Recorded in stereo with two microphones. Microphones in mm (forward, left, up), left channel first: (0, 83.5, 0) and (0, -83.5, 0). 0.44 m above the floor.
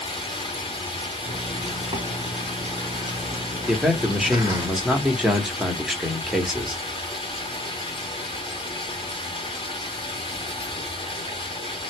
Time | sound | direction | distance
0.0 | running water | 30° left (ahead or behind) | 0.9 m
1.2 | a zipper | 25° right (ahead or behind) | 0.9 m
3.7 | a man speaking | centre (ahead or behind) | 0.8 m